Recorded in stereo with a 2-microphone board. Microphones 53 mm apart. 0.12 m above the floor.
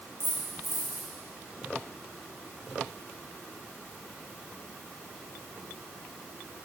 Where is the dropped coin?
30° left (ahead or behind), 4.5 m.